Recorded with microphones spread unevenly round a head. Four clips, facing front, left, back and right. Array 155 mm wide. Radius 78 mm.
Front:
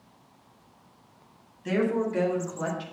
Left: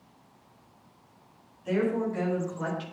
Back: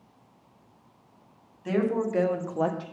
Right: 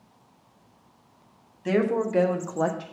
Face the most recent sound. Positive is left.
turn(degrees=-160)